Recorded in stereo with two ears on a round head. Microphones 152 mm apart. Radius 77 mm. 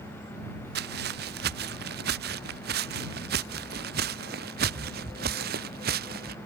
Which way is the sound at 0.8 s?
70° right (ahead or behind).